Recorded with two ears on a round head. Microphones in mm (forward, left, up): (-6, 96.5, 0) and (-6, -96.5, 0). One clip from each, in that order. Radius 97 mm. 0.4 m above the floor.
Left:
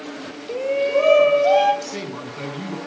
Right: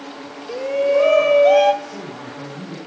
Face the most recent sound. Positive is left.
turn(degrees=65)  # may be behind; listen again after turning